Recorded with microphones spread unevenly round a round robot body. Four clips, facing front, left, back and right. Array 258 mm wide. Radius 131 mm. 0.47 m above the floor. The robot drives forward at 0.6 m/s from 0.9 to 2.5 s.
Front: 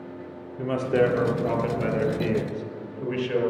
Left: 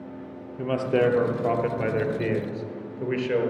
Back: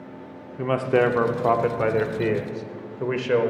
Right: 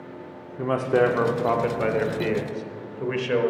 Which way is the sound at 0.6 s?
155° right.